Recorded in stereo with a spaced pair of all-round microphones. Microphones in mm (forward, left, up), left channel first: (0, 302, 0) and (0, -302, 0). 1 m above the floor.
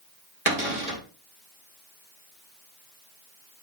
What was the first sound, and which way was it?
A cupboard door, 75° right (ahead or behind).